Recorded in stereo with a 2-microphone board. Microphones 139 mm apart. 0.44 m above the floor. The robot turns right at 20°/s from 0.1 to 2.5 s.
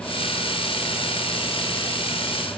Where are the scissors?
No scissors in this recording.